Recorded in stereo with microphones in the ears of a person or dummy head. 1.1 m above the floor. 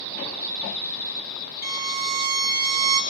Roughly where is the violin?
Right.